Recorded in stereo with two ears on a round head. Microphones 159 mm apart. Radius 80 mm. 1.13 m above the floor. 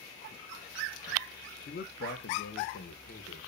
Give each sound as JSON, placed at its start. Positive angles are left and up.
{"t": 1.7, "sound": "a man speaking", "side_deg": 50, "distance_m": 1.1}